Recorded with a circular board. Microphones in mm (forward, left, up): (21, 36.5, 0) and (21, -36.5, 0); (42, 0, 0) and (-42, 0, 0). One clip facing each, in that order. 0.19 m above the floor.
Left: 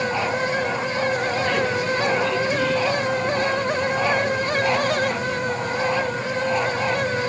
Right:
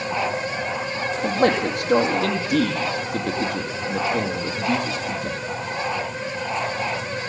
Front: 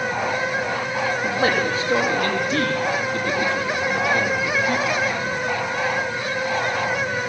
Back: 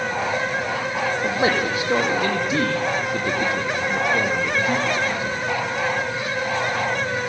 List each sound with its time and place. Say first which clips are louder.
1.2 s a man speaking: right 2 dB, even; 110° right, 6 m